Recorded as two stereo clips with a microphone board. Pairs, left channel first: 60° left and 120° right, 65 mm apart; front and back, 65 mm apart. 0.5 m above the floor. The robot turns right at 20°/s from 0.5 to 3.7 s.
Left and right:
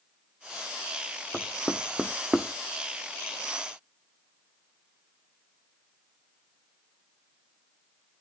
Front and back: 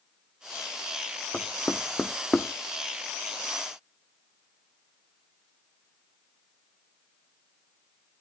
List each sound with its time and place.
1.3 s knocking: 80° right, 0.8 m; by 2.5 s 60° right, 0.8 m